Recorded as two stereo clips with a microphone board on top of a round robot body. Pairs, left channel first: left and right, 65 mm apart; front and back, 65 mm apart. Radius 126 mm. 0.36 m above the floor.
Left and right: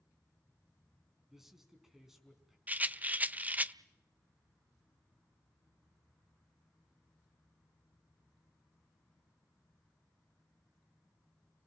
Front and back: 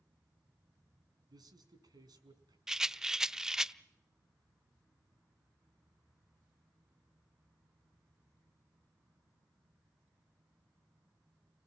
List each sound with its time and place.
1.3 s a man speaking: 175° right, 5.5 m
2.7 s a rattle: 110° right, 0.9 m